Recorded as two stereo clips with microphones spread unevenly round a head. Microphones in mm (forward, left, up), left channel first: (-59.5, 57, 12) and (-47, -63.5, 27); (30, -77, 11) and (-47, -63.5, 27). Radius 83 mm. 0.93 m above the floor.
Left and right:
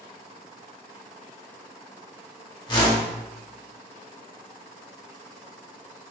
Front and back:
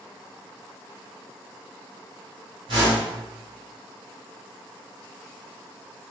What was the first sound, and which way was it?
A whoosh, 140° left.